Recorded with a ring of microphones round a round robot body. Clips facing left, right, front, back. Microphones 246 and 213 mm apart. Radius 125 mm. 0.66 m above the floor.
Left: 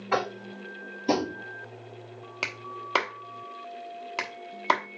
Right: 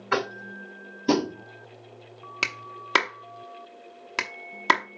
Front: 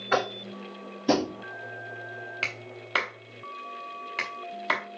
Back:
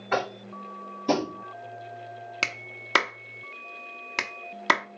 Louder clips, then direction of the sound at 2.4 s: Right 1 dB, front 1 dB; 145° right.